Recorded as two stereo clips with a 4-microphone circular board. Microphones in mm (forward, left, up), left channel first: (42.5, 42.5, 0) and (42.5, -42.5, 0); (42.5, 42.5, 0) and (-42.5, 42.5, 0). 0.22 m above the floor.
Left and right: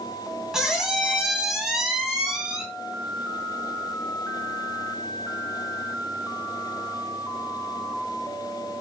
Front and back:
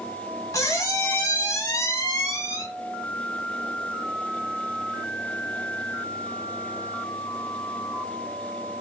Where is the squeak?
10° right, 0.8 m.